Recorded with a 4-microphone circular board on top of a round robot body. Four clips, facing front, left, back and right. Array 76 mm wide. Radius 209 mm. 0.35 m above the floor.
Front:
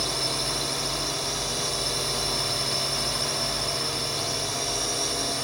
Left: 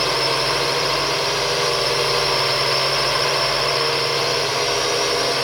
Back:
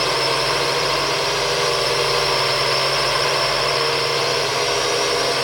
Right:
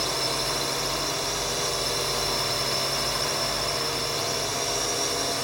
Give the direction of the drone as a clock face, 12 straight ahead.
7 o'clock.